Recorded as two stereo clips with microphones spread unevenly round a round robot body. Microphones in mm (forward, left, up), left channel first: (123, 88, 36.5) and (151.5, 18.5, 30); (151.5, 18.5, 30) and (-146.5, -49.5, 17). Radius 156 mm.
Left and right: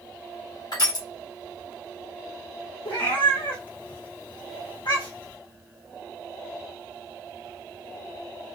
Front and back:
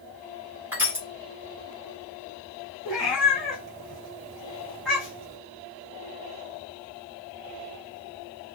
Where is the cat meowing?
105° left, 2 m.